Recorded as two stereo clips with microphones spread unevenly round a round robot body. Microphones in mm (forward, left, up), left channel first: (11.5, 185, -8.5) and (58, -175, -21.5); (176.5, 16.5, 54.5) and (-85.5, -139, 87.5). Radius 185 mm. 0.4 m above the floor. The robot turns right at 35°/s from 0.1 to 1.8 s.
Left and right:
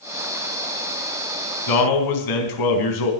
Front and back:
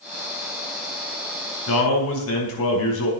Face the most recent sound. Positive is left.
turn(degrees=70)